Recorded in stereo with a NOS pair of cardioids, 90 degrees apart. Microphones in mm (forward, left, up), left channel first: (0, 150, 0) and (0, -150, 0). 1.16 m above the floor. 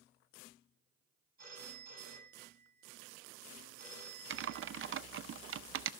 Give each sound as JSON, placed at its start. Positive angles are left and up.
{"t": 1.4, "sound": "a phone ringing", "azimuth_deg": -30, "distance_m": 6.5}
{"t": 4.3, "sound": "typing on a keyboard", "azimuth_deg": -45, "distance_m": 0.6}